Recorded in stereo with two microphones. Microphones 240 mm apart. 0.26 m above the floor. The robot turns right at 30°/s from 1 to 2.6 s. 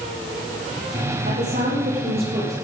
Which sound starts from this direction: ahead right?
A woman speaking, at 1.2 s.